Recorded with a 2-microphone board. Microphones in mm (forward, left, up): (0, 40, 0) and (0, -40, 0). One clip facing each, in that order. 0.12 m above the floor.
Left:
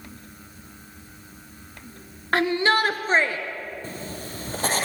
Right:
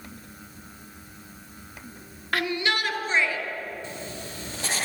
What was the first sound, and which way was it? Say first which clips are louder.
A shout: left 6 dB; 30° left (ahead or behind).